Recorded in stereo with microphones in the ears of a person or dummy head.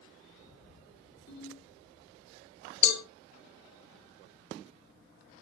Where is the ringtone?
75° left (ahead or behind), 4 m.